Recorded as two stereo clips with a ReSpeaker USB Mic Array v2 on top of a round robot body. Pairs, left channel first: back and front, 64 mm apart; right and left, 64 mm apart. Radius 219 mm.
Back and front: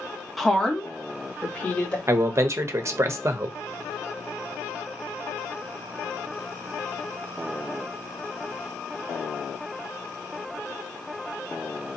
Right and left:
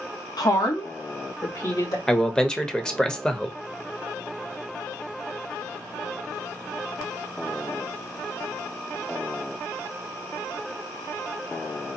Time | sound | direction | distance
0.4 | a woman speaking | 90° right | 1.1 m
2.1 | a man speaking | 15° right | 1.1 m